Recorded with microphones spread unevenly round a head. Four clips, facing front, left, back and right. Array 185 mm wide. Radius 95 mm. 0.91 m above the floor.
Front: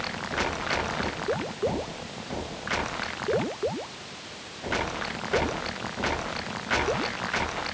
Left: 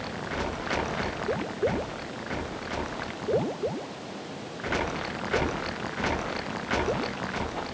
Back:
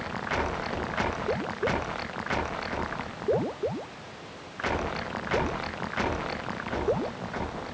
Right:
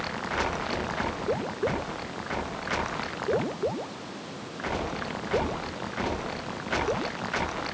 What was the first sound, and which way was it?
Only background noise.